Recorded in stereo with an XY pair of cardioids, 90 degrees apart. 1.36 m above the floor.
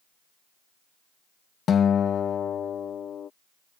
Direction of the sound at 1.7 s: 65° left.